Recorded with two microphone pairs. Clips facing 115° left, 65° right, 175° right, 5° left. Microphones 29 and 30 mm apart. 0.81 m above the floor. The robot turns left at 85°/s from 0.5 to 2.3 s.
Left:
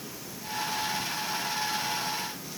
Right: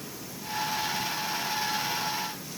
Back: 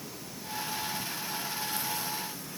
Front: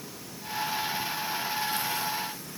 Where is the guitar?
I don't hear a guitar.